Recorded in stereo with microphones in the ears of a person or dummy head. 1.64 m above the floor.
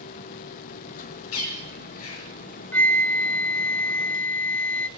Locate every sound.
0.0 s a machine running: 45° left (ahead or behind), 1.0 m
1.3 s a bird: 80° left, 5.5 m
2.7 s a flute: 10° left (ahead or behind), 0.6 m